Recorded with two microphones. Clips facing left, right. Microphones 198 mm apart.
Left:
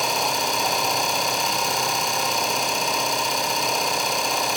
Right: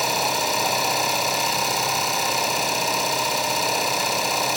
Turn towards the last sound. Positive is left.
turn(degrees=0)  # may be behind; listen again after turning